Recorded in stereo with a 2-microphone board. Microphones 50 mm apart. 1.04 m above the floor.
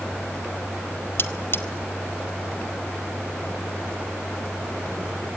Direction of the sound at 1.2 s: 50° left (ahead or behind).